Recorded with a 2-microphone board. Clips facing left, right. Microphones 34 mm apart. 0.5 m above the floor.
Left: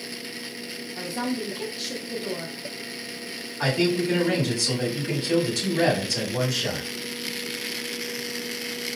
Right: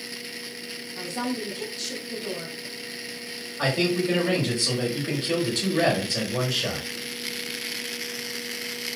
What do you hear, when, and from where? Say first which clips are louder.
0.9 s a woman speaking: left 1 dB; 10° left (ahead or behind), 0.7 m
3.6 s a man speaking: left 1 dB; 40° right (ahead or behind), 1.5 m